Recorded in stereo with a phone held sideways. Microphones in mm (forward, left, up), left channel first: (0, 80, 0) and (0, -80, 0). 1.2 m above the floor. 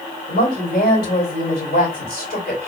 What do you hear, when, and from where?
0.3 s a woman speaking: 70° left (ahead or behind), 3 m